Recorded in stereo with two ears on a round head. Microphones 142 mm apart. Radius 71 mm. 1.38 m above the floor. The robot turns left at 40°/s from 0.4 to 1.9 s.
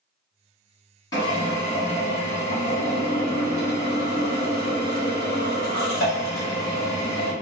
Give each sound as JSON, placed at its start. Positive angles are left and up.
{"t": 1.1, "sound": "a drill", "azimuth_deg": 155, "distance_m": 1.3}